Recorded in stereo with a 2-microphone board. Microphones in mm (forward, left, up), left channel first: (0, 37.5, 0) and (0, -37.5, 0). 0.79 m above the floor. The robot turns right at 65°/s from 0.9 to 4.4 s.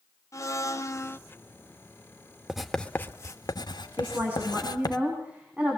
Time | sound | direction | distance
0.3 | a blender | 45° left (ahead or behind) | 0.7 m
2.5 | writing | 5° right (ahead or behind) | 1.2 m
4.0 | a woman speaking | 45° right (ahead or behind) | 6 m